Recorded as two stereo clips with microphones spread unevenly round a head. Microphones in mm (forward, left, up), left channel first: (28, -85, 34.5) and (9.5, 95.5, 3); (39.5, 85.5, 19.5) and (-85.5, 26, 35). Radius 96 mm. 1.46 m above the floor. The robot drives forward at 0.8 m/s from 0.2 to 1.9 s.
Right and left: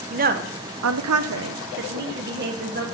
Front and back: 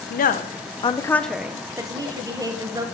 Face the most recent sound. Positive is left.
turn(degrees=140)